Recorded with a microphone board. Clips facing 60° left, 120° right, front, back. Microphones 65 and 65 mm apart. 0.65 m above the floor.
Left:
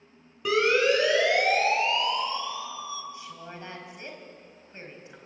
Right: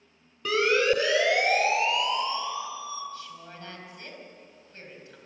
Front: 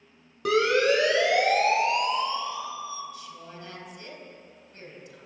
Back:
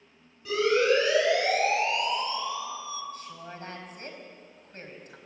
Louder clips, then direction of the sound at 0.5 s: Left 1 dB, front 2 dB; 25° right.